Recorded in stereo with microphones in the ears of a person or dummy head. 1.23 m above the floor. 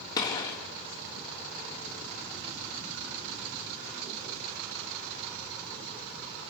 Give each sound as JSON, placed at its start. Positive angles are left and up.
{"t": 0.2, "sound": "a gunshot", "side_deg": 25, "distance_m": 3.5}